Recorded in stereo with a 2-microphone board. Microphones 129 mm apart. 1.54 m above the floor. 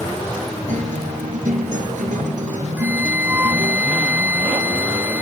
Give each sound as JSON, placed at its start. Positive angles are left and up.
{"t": 0.7, "sound": "a guitar", "side_deg": -80}
{"t": 2.8, "sound": "a flute", "side_deg": -15}